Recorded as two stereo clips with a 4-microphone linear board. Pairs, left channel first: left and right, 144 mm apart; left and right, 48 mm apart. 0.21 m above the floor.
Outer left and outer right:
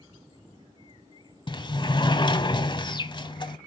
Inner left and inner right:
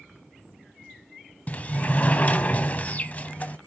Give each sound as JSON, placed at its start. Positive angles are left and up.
{"t": 1.5, "sound": "a sliding door", "side_deg": 30, "distance_m": 1.1}